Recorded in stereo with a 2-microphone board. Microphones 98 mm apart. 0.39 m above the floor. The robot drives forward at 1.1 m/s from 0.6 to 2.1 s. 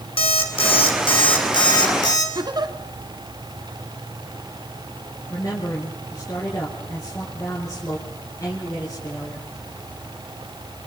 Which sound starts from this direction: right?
A giggle, at 2.4 s.